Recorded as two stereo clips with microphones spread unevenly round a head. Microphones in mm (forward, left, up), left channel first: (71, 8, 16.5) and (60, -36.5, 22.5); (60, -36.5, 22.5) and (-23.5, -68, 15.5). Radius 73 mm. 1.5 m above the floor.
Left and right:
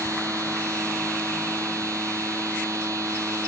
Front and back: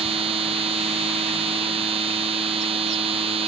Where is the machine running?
160° right.